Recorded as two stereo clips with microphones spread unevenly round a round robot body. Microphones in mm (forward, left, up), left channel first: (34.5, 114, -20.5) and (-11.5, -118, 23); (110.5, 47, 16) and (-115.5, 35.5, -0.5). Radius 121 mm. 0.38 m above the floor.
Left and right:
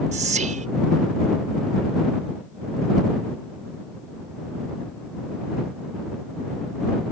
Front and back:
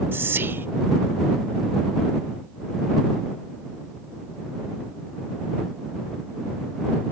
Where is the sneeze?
No sneeze in this recording.